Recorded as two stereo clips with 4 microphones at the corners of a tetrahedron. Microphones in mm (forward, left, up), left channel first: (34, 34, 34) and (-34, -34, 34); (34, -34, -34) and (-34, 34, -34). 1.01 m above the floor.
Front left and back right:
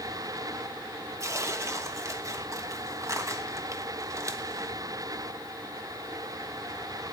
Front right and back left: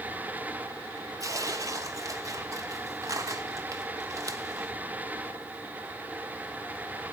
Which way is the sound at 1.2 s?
175° left.